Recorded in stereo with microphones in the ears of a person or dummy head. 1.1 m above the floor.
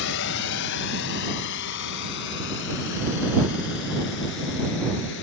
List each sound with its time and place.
0.0 s a drone: 65° left (ahead or behind)